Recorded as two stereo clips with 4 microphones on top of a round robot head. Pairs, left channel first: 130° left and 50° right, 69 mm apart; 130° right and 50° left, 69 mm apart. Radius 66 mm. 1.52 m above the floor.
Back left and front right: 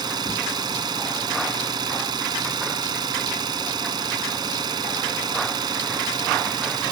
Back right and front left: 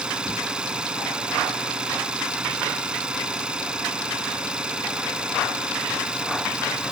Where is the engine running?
25° right.